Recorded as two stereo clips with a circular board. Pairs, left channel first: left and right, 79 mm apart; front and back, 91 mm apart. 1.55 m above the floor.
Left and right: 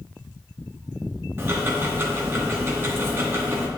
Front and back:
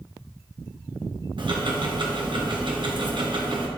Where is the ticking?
150° right, 0.7 m.